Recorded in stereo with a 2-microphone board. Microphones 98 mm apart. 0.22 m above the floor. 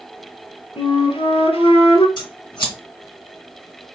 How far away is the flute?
About 1.0 m.